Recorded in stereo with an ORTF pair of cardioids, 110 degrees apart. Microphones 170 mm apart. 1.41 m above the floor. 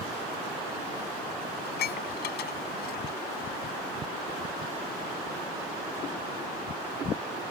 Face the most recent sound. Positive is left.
turn(degrees=70)